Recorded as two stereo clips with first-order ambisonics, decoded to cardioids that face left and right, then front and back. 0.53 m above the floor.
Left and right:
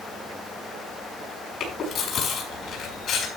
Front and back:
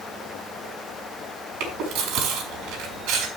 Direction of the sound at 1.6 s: 150° left.